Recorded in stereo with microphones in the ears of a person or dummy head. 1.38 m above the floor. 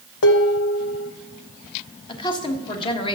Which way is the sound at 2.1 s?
25° left (ahead or behind).